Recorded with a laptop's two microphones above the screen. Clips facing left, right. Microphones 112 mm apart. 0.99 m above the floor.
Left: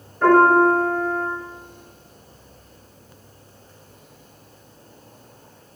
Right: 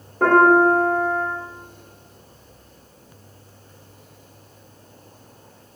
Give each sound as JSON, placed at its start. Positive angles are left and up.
{"t": 0.2, "sound": "a piano", "side_deg": -80, "distance_m": 3.5}